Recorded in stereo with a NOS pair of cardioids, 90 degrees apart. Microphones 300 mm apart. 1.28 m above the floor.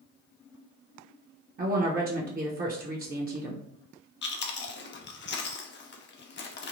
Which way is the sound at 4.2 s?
40° left.